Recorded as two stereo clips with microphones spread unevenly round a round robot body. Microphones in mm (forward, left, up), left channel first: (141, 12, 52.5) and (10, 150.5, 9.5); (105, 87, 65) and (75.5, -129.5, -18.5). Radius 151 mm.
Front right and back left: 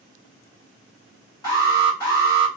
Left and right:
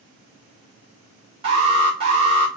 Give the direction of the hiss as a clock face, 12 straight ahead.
No hiss in this recording.